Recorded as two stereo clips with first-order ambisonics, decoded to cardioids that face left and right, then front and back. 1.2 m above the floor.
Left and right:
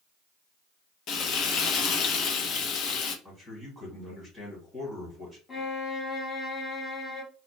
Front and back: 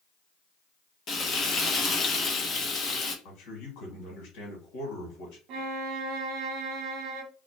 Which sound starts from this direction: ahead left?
Frying, at 1.1 s.